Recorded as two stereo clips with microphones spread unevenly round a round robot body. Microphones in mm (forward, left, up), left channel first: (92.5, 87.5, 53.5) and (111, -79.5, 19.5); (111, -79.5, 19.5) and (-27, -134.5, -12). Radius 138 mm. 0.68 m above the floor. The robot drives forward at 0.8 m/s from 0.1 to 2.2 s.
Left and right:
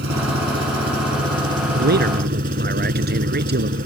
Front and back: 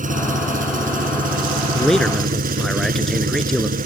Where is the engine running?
130° right; by 3.9 s 140° right.